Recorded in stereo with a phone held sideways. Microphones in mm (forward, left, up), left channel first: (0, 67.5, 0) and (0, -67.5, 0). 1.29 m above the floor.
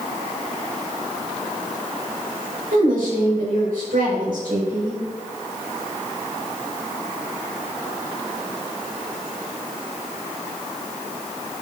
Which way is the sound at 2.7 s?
85° right.